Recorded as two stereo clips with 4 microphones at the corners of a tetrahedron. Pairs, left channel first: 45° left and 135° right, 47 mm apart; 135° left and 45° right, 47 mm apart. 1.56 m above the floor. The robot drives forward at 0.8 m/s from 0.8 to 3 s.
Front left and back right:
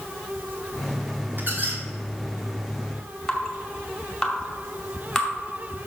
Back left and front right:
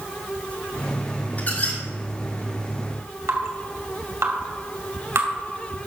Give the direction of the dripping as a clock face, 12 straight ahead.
1 o'clock.